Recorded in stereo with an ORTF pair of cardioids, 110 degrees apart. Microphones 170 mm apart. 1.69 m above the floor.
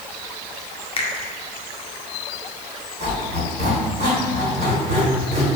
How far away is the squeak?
About 1.8 m.